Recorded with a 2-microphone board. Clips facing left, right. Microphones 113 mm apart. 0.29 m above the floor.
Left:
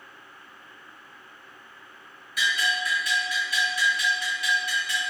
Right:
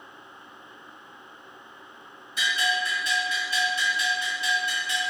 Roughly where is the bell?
Right.